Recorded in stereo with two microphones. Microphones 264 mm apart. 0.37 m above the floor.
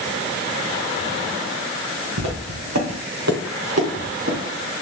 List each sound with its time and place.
2.2 s footsteps: 85° right, 3 m; by 4.4 s 55° right (ahead or behind), 3 m